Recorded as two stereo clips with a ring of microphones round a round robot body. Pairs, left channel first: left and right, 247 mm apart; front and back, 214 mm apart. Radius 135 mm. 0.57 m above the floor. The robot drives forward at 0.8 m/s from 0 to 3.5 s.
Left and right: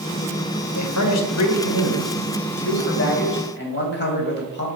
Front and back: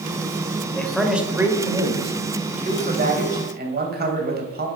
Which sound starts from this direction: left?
A man speaking, at 0.7 s.